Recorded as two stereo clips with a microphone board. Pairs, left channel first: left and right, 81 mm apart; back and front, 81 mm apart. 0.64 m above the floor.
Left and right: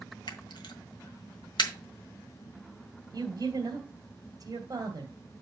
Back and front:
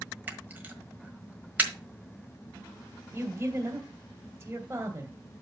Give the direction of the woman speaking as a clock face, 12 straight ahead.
2 o'clock.